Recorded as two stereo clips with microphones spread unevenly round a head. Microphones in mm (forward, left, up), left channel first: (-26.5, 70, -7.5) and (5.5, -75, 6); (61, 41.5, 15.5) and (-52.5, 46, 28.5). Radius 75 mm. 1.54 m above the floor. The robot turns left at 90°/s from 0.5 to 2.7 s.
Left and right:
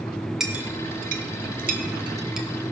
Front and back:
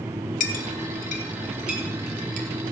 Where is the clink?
5° left, 1.1 m; by 2.5 s 170° right, 1.1 m.